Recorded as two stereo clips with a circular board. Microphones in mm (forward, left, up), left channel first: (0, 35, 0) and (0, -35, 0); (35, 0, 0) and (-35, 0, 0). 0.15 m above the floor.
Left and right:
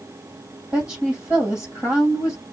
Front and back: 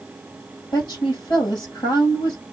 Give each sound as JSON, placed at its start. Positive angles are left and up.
{"t": 0.7, "sound": "a woman speaking", "azimuth_deg": -20, "distance_m": 5.0}